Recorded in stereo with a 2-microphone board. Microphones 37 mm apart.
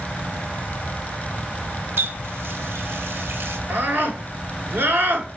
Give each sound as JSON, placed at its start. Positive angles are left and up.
{"t": 2.0, "sound": "a running tap", "side_deg": -80, "distance_m": 0.7}
{"t": 3.7, "sound": "a scream", "side_deg": -65, "distance_m": 1.9}